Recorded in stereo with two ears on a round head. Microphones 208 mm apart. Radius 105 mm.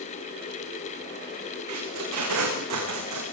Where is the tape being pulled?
80° right, 9 m.